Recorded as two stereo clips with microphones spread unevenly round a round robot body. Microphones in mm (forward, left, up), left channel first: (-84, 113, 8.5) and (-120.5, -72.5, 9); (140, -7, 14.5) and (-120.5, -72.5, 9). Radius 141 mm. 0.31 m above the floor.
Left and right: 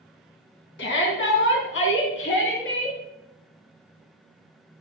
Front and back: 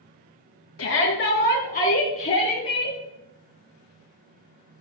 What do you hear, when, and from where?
0.8 s a shout: 55° left, 2.5 m; by 3.0 s 90° left, 5.5 m